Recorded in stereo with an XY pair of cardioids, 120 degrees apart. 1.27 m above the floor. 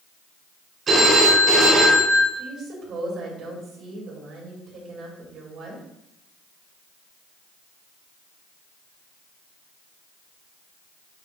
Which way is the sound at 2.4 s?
55° right.